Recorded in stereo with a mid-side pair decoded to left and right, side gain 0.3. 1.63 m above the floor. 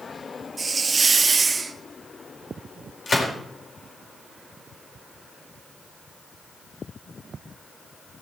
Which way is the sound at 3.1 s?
55° left.